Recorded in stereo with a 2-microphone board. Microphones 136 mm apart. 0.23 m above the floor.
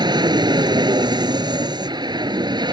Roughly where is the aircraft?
Right.